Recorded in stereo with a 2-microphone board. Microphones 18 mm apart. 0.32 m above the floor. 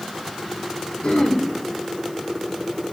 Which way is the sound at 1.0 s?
80° left.